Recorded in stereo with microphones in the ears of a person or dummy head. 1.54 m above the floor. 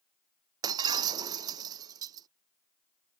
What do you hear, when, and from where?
0.6 s breaking glass: 25° right (ahead or behind)